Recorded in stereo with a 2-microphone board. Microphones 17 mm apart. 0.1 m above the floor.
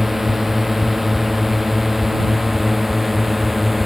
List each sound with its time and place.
0.0 s a drone: 15° right (ahead or behind); by 3.9 s 10° right (ahead or behind)